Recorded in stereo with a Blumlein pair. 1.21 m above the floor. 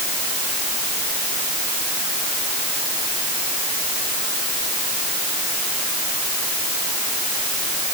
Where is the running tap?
I don't hear a running tap.